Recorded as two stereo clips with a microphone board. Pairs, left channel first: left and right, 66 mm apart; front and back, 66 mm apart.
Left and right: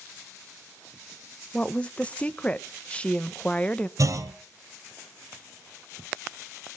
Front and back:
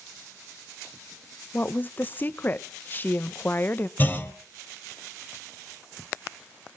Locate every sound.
1.5 s a woman speaking: 35° left, 0.9 m
4.0 s a clunk: 60° right, 2.5 m